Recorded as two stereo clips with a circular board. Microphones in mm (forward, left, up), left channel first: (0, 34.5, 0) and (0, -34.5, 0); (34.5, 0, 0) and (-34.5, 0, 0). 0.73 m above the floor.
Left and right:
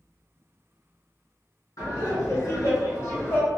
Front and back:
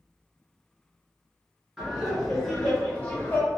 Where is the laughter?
95° left, 1.5 m; by 3.5 s 40° left, 1.0 m.